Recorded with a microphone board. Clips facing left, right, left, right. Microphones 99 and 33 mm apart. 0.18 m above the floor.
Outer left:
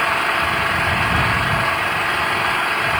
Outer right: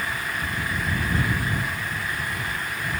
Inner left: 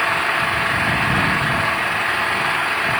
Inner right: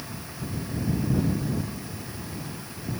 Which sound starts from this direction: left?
An engine running, at 0.0 s.